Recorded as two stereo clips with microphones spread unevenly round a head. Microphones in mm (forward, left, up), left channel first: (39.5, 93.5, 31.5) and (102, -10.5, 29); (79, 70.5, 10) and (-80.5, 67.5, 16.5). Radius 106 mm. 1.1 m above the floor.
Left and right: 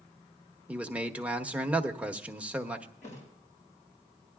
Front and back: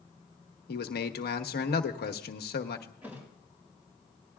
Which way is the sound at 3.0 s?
100° left.